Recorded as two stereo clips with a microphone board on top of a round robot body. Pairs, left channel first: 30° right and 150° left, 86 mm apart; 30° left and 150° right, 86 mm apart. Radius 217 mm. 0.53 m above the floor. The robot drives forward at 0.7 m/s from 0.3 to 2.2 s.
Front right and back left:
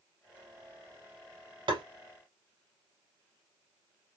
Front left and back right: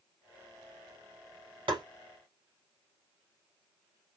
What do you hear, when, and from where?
1.7 s tapping: straight behind, 0.9 m